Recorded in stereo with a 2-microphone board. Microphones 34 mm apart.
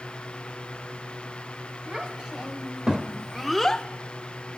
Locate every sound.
1.9 s a child speaking: 30° right (ahead or behind), 2.5 m; by 3.9 s 25° left (ahead or behind), 0.5 m